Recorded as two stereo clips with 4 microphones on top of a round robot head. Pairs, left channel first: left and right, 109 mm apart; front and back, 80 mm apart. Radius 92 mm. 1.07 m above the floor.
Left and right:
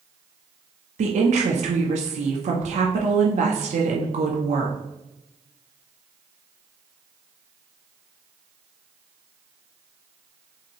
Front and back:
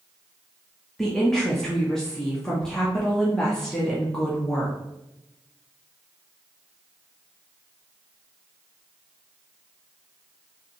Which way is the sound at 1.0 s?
85° right.